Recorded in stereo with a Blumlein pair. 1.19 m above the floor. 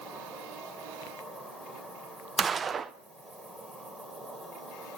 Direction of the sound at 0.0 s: 10° right.